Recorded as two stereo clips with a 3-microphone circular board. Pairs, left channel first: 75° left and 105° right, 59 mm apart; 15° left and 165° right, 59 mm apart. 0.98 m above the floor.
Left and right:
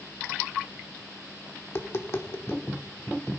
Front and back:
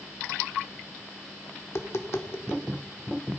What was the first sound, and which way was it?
Tapping, 40° left.